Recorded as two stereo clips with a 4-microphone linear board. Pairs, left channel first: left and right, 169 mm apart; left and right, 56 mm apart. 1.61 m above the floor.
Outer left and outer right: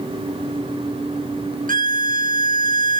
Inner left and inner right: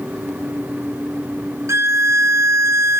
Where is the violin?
55° right (ahead or behind), 0.7 m.